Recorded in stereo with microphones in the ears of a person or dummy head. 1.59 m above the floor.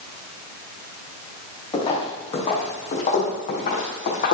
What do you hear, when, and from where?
1.7 s footsteps: 30° left (ahead or behind), 4 m; by 4.3 s 50° left (ahead or behind), 4 m